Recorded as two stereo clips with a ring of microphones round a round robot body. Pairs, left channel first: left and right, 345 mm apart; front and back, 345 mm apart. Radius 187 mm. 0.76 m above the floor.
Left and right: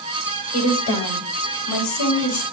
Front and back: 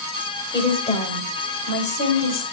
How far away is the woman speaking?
About 4 m.